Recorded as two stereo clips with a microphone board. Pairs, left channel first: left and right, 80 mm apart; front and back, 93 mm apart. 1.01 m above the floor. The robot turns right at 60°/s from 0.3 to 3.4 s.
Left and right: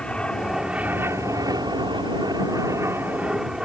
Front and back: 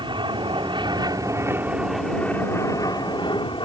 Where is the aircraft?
165° left; by 3.6 s 5° right.